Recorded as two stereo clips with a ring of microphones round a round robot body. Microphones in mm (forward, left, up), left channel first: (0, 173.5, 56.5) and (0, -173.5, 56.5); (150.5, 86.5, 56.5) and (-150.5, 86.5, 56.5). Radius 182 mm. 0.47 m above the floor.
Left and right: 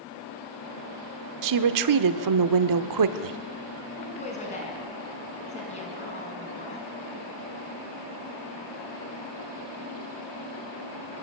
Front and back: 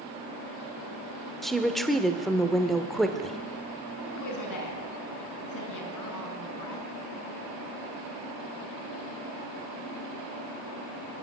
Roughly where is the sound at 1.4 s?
Right.